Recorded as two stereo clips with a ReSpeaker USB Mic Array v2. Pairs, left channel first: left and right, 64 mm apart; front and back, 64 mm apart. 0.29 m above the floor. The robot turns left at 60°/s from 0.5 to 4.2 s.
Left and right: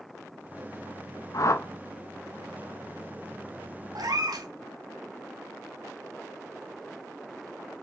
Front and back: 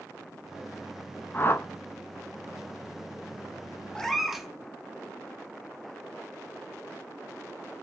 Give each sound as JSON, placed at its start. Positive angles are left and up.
{"t": 1.3, "sound": "a whoosh", "azimuth_deg": 60, "distance_m": 0.6}
{"t": 4.0, "sound": "a cat meowing", "azimuth_deg": -80, "distance_m": 0.7}